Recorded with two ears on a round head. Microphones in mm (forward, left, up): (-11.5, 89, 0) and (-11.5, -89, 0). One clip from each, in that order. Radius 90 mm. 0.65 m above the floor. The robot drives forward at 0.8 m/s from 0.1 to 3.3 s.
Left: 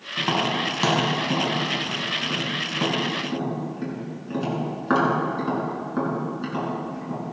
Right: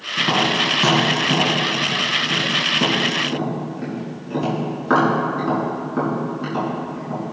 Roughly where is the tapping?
Left.